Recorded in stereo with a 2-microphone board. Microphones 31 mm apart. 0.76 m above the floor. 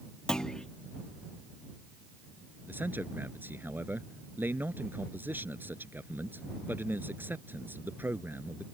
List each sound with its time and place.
0.3 s a clunk: 20° left (ahead or behind)
2.7 s a man speaking: 85° right